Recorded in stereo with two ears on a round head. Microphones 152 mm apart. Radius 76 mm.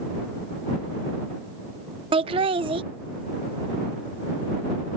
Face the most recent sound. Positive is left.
turn(degrees=-30)  # may be behind; listen again after turning